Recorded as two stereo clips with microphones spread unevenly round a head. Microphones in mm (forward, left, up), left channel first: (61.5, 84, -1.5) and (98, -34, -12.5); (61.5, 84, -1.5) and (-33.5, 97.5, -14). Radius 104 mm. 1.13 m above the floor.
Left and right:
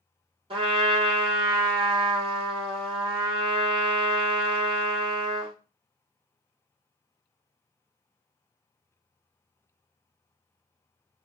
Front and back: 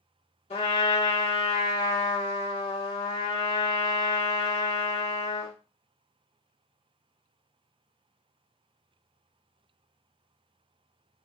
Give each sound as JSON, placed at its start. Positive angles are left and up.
{"t": 0.5, "sound": "a trumpet", "azimuth_deg": -25, "distance_m": 1.4}